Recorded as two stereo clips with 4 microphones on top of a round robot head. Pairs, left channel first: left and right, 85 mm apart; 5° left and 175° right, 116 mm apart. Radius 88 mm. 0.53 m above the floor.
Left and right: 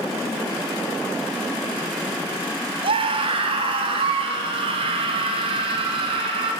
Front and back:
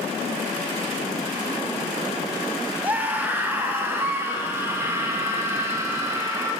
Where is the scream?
100° right, 3.5 m; by 6.5 s 105° right, 6 m.